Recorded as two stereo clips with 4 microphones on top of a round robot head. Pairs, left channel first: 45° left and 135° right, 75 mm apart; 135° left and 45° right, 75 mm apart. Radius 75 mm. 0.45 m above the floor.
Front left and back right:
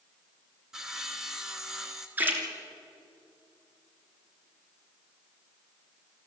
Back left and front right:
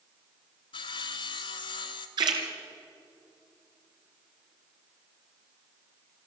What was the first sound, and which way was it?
Sawing, 140° left.